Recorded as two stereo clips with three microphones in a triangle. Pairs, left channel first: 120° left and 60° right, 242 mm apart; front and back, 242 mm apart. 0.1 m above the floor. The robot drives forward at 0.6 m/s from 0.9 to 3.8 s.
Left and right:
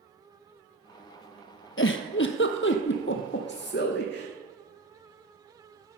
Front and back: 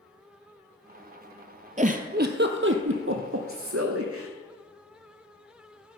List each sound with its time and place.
1.8 s a giggle: 130° left, 0.8 m; by 4.3 s 160° left, 1.8 m